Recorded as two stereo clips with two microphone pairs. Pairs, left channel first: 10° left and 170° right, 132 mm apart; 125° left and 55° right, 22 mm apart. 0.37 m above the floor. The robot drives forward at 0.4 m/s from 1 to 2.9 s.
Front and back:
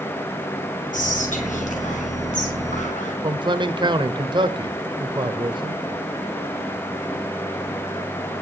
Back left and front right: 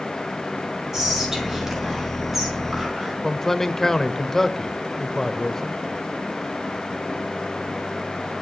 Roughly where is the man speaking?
Behind.